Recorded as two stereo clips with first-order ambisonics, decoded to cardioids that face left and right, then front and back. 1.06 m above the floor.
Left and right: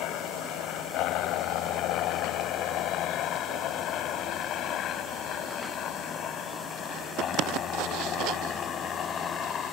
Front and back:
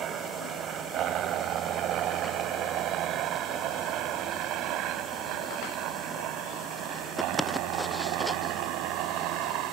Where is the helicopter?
125° left; by 9.7 s 150° left.